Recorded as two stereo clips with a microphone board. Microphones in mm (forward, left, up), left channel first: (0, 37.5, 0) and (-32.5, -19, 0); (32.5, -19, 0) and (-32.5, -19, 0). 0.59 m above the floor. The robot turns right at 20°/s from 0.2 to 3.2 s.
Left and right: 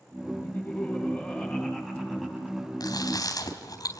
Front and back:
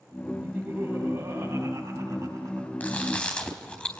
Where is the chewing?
65° left, 3.5 m; by 4.0 s 70° left, 3.5 m.